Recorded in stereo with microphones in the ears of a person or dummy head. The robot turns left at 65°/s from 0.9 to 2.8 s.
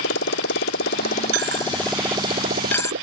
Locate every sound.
0.0 s a motorcycle: 75° left (ahead or behind); by 3.0 s 60° right (ahead or behind)
1.3 s a dropped coin: 80° right; by 2.9 s 10° left (ahead or behind)